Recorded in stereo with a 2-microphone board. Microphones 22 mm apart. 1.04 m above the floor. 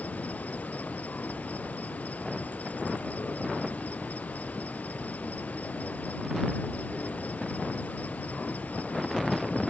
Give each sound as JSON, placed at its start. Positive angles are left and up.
{"t": 0.0, "sound": "an insect", "side_deg": 85}